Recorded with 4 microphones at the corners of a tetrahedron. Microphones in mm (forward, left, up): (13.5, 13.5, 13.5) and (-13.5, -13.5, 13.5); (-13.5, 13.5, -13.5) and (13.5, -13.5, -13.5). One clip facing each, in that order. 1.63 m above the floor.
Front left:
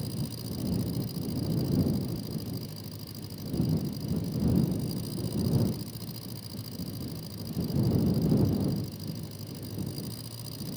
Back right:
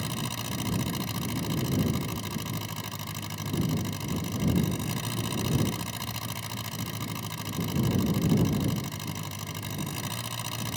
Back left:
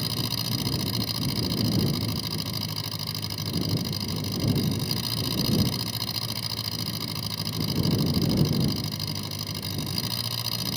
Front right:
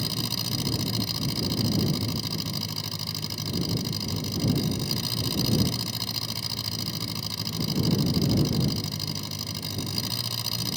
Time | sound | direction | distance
0.0 | an engine running | 145° right | ?